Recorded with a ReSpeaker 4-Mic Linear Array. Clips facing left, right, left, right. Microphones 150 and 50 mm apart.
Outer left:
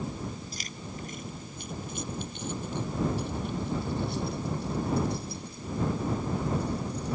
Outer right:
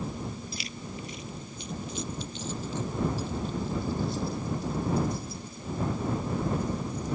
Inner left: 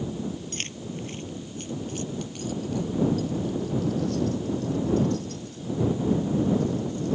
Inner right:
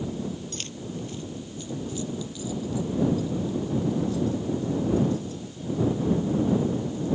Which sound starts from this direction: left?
Keys jangling, at 0.5 s.